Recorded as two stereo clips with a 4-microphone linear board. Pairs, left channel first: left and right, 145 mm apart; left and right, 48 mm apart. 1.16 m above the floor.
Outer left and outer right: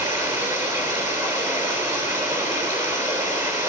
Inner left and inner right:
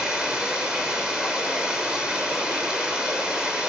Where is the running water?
20° right (ahead or behind), 7 m.